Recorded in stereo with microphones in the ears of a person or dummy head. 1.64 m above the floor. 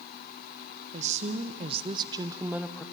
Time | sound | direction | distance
0.9 | a woman speaking | 45° right (ahead or behind) | 1.3 m